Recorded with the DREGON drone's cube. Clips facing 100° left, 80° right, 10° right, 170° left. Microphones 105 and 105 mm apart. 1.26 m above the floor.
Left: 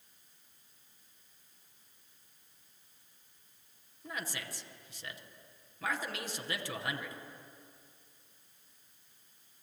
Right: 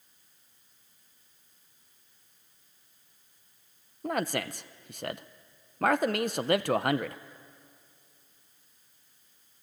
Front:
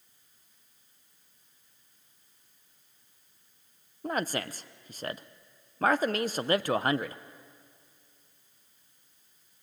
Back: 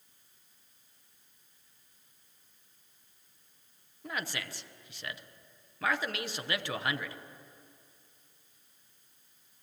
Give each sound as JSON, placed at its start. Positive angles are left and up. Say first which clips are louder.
{"t": 4.0, "sound": "a man speaking", "louder": "right 12 dB, front 7 dB", "azimuth_deg": -60, "distance_m": 0.8}